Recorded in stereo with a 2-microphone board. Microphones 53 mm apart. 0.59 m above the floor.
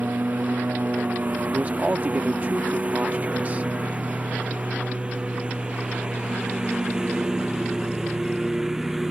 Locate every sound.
0.0 s a lawn mower: 35° right (ahead or behind); by 9.1 s 10° right (ahead or behind)
1.5 s a man speaking: 30° right (ahead or behind)